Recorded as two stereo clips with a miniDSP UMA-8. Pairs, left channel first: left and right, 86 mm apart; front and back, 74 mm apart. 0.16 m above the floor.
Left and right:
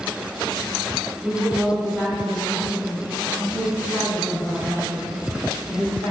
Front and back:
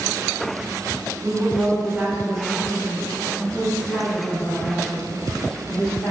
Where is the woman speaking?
Straight behind, 1.6 m; by 6.1 s 10° left, 3 m.